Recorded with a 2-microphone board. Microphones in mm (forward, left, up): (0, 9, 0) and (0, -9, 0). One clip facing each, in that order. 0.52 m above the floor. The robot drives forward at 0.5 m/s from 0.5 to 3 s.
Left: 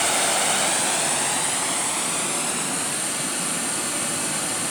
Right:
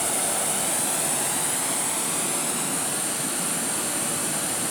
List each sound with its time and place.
0.0 s running water: 40° left (ahead or behind), 0.8 m; by 4.7 s 15° left (ahead or behind), 1.9 m